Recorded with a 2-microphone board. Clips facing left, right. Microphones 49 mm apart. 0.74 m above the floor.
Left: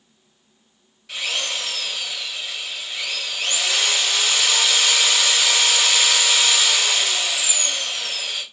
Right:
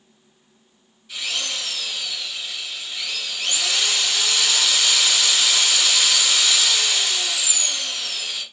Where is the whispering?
I don't hear whispering.